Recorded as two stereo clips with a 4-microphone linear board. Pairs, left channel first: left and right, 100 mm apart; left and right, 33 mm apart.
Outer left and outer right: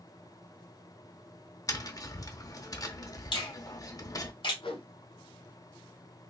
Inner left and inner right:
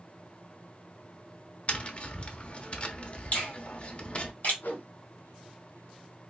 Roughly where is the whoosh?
Left.